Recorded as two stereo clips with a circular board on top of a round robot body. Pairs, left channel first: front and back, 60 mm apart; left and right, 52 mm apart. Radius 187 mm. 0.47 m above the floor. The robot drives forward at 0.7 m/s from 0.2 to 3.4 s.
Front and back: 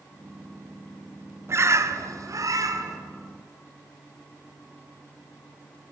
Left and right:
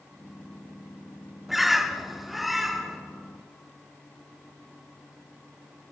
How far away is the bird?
About 1.1 m.